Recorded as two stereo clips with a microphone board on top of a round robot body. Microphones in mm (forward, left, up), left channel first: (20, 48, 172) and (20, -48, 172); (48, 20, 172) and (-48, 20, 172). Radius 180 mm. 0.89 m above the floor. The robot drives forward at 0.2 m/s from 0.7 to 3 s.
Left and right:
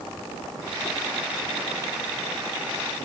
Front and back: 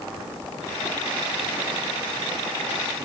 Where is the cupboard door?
No cupboard door in this recording.